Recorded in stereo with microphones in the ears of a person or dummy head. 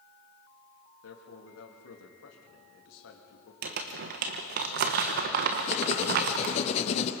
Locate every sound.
1.0 s a man speaking: 80° left, 2.5 m
3.6 s crumpling: 45° right (ahead or behind), 1.1 m
5.7 s writing: 35° left (ahead or behind), 1.0 m